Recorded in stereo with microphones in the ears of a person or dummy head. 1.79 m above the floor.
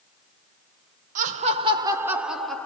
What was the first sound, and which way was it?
Laughter, 45° right (ahead or behind).